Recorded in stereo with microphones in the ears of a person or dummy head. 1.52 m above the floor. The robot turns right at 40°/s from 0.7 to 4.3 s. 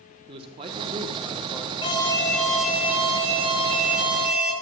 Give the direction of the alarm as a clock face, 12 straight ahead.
7 o'clock.